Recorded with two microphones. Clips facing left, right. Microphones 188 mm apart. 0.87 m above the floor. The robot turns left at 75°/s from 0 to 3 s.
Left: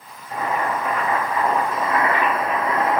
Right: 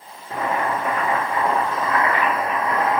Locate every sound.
0.3 s boiling: 90° right, 1.5 m; by 3.0 s 70° left, 1.5 m